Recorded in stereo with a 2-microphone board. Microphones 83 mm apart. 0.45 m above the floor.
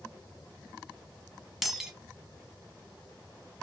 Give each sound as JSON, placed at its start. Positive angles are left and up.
{"t": 1.6, "sound": "breaking glass", "side_deg": -5, "distance_m": 1.0}